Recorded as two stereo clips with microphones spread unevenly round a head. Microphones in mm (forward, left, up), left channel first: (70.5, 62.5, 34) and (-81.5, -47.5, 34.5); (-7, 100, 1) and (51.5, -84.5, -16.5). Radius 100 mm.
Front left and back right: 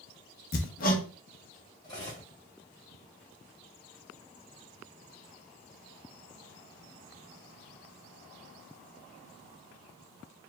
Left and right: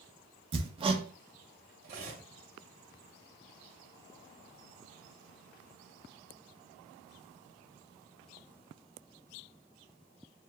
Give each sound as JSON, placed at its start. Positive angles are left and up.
{"t": 0.5, "sound": "hammering", "azimuth_deg": -10, "distance_m": 1.0}
{"t": 1.8, "sound": "cutlery clinking", "azimuth_deg": -30, "distance_m": 3.0}